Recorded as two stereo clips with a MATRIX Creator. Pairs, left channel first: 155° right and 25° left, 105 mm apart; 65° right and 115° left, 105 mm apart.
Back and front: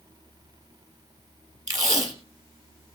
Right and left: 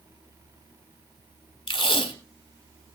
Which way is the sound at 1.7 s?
35° right.